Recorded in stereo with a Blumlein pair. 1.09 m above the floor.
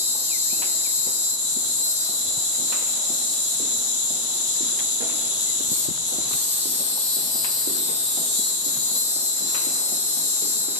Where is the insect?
45° left, 1.1 m.